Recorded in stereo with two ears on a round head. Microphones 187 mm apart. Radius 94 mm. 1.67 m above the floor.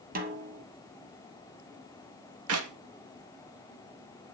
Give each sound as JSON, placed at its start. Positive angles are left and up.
{"t": 0.1, "sound": "a snare drum", "side_deg": -40, "distance_m": 2.5}
{"t": 2.5, "sound": "a clap", "side_deg": -75, "distance_m": 2.5}